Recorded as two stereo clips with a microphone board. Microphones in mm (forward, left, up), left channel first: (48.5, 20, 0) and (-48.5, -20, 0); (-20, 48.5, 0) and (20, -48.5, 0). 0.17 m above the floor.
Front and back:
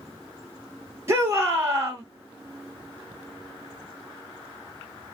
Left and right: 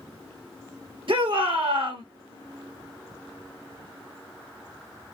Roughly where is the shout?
Right.